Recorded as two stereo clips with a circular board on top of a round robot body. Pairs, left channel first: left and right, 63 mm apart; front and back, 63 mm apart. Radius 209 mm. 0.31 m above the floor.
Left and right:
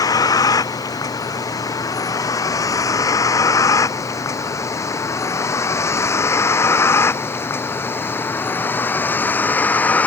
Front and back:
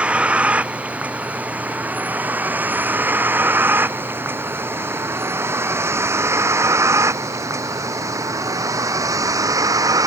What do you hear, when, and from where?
0.0 s a vehicle: 110° left; by 10.1 s 155° left